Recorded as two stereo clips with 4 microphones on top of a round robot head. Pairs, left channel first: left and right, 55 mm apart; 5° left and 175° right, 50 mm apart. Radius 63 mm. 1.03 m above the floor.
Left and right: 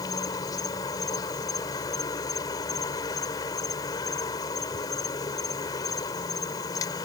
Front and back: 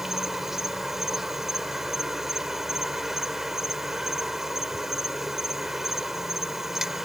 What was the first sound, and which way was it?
An insect, 100° left.